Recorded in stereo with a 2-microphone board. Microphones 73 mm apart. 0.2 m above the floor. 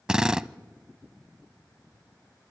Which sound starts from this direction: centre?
A drill, at 0.1 s.